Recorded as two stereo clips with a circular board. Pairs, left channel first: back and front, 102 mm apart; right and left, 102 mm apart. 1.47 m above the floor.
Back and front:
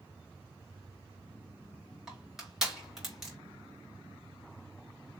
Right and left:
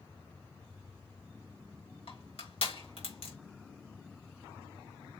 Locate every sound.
2.1 s crushing: 85° right, 4 m